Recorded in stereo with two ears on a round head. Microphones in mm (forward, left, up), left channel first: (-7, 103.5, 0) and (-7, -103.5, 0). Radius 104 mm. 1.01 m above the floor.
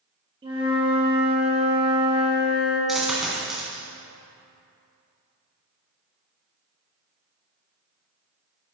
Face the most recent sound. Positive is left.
turn(degrees=0)  # may be behind; listen again after turning